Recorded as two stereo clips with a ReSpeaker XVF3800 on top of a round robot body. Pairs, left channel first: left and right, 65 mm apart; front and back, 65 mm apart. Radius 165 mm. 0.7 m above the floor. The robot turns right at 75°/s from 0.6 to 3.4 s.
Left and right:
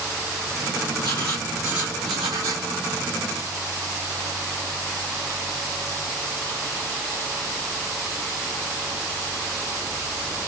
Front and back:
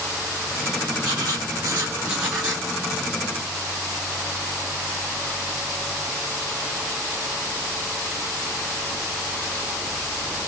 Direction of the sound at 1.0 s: 145° left.